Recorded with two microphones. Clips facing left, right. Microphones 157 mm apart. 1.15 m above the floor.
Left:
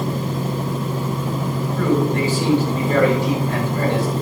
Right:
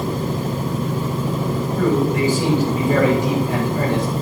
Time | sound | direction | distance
1.8 | a man speaking | 15° right (ahead or behind) | 6.5 m